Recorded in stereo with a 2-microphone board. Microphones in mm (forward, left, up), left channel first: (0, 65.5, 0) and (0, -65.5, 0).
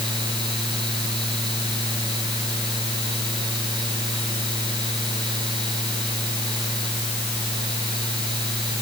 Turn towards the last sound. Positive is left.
No sound to turn to.